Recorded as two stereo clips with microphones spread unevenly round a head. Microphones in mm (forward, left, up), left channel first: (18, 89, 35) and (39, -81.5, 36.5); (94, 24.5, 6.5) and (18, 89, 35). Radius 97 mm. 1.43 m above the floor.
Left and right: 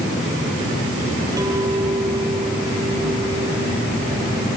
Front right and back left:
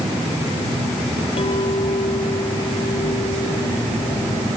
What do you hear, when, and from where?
1.4 s a clink: 10° right